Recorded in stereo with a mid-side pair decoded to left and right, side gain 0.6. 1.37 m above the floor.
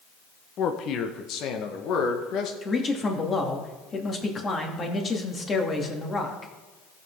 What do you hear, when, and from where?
0.6 s a man speaking: 50° left, 1.2 m; by 2.5 s 60° left, 2 m
2.6 s a man speaking: 30° left, 2.5 m